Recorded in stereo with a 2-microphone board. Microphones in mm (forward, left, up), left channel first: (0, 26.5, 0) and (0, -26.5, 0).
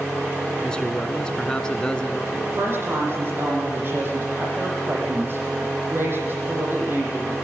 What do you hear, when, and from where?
0.6 s a man speaking: 15° left (ahead or behind), 1.7 m
2.3 s a woman speaking: 40° right (ahead or behind), 8 m